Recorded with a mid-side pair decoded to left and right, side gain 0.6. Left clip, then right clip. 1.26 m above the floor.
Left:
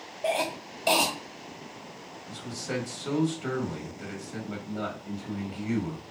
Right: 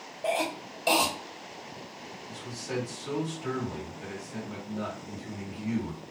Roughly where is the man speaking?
Ahead left.